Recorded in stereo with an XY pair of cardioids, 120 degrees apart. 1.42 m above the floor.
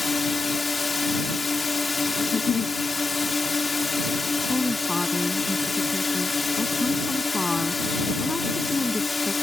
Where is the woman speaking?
10° left.